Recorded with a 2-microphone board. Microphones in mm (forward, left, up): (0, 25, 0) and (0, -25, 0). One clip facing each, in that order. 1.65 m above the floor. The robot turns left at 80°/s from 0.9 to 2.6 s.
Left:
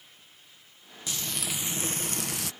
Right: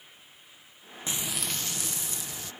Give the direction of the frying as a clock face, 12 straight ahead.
5 o'clock.